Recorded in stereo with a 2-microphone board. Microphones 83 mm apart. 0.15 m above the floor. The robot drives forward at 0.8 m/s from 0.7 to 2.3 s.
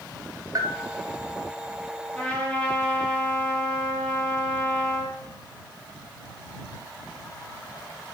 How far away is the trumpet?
About 4 m.